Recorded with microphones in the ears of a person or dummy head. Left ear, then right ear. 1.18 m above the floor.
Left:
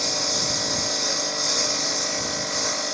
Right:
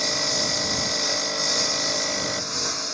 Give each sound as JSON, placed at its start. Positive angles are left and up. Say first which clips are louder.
{"t": 0.0, "sound": "a lawn mower", "louder": "even", "side_deg": 5}